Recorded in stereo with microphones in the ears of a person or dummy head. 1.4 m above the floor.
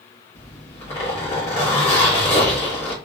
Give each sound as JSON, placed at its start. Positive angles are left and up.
{"t": 0.3, "sound": "a zipper", "side_deg": 35, "distance_m": 1.0}